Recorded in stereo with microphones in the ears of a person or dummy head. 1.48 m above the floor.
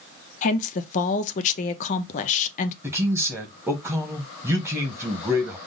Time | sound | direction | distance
0.4 | a woman speaking | 40° left (ahead or behind) | 0.5 m
2.8 | a man speaking | 10° right (ahead or behind) | 1.0 m